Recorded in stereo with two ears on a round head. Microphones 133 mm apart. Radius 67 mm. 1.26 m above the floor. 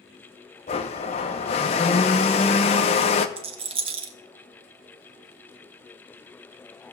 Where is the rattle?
35° right (ahead or behind), 1.0 m.